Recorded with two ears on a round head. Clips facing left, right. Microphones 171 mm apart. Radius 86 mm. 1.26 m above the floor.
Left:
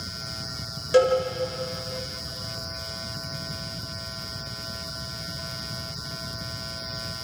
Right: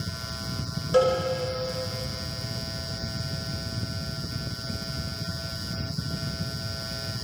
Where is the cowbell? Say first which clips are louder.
Left 2 dB; 25° left (ahead or behind), 5 m.